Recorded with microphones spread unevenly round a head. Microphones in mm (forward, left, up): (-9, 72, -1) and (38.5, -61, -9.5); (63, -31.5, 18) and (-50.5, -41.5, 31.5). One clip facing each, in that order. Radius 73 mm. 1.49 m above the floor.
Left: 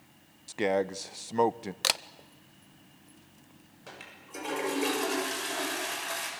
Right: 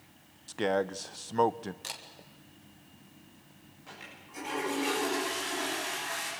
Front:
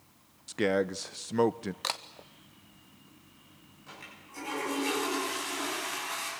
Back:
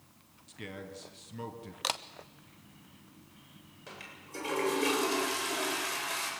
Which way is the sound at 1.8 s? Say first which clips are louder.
Left 11 dB, back 5 dB; 100° left.